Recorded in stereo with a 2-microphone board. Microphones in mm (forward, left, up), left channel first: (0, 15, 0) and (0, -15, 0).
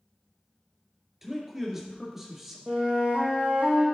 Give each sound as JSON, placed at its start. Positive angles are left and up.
{"t": 1.2, "sound": "a man speaking", "side_deg": -10, "distance_m": 2.5}
{"t": 2.7, "sound": "a flute", "side_deg": -55, "distance_m": 2.5}